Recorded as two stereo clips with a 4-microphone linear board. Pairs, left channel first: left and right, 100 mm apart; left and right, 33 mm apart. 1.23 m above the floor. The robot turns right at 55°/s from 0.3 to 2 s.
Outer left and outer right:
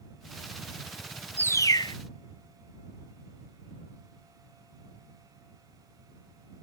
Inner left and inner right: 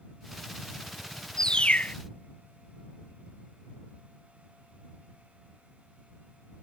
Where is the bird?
15° left; by 1.9 s 50° left.